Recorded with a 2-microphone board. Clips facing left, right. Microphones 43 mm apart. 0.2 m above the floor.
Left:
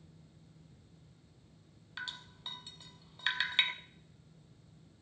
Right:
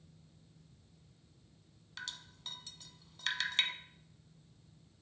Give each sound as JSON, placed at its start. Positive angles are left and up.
{"t": 2.0, "sound": "dripping", "side_deg": 20, "distance_m": 1.0}